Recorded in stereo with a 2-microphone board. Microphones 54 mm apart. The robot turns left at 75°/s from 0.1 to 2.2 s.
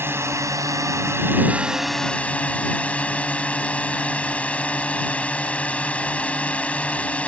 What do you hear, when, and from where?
0.0 s a drone: 50° right; by 7.3 s 155° left